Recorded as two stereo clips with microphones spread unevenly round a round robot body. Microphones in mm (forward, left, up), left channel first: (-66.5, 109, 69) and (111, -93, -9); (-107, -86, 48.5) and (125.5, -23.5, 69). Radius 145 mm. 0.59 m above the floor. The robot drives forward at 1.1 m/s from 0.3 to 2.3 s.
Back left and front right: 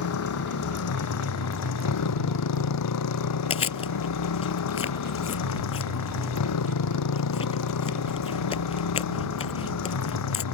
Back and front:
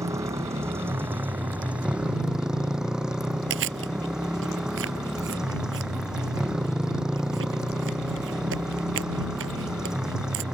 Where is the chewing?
65° left.